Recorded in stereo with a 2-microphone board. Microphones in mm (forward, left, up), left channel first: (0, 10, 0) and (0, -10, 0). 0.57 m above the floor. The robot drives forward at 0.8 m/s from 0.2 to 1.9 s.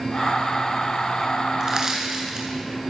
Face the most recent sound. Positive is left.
turn(degrees=-30)  # may be behind; listen again after turning